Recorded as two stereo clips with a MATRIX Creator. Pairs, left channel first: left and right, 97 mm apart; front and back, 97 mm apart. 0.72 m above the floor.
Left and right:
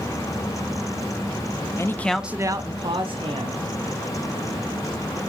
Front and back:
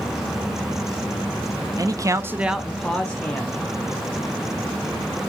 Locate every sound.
1.8 s a man speaking: 135° left, 0.7 m; by 3.6 s 75° right, 1.4 m